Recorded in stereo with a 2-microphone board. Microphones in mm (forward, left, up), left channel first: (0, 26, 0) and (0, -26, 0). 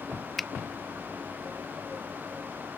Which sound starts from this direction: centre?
A finger snap, at 0.4 s.